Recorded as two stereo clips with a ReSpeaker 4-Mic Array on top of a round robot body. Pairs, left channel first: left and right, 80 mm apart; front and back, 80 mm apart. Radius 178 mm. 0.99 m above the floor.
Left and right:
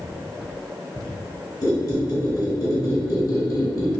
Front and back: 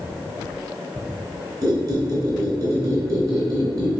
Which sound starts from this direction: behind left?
A squeak, at 1.6 s.